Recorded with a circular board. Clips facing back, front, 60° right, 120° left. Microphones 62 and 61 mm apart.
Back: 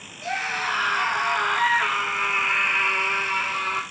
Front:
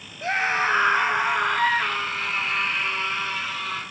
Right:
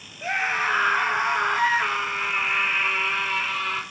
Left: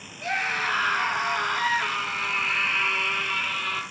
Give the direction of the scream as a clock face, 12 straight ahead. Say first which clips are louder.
Front 4 dB, right 2 dB; 12 o'clock.